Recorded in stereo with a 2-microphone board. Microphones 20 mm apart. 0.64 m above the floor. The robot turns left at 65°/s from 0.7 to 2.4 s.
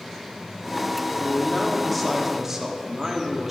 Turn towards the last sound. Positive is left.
turn(degrees=-30)